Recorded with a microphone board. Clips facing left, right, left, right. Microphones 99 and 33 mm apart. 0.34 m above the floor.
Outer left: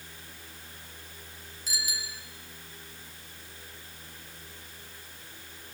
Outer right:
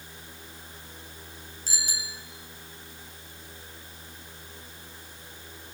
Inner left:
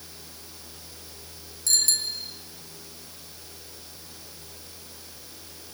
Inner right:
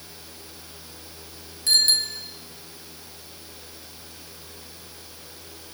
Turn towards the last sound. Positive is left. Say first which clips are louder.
# even, inner right 6 dB
turn(degrees=-35)  # may be behind; listen again after turning